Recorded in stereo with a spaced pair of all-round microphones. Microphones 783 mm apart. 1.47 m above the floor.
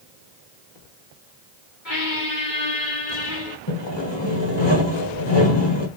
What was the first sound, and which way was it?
A squeak, 70° left (ahead or behind).